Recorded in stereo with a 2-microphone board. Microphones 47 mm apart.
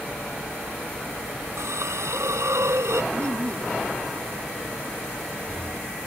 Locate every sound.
1.6 s a hiss: 85° right
3.1 s laughter: 85° right